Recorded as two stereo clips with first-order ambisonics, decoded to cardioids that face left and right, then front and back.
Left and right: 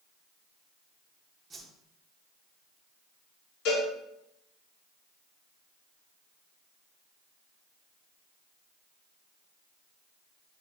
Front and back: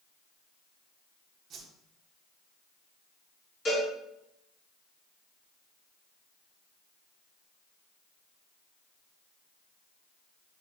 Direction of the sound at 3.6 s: 65° left.